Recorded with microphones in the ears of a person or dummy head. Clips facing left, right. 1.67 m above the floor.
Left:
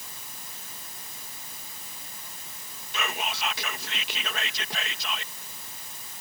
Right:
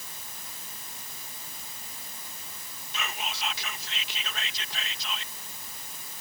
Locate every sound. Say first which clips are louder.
2.9 s whispering: left 4 dB; 55° left (ahead or behind)